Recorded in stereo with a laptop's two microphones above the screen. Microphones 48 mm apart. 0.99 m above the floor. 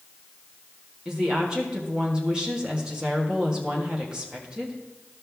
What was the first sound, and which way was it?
A woman speaking, 20° right (ahead or behind).